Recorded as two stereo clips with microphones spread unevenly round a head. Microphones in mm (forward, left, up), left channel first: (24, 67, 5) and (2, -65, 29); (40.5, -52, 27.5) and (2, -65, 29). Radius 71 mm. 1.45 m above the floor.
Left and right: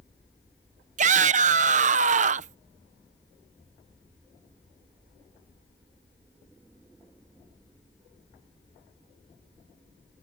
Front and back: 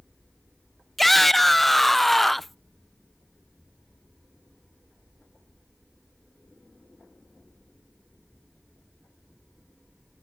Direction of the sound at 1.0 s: 65° right.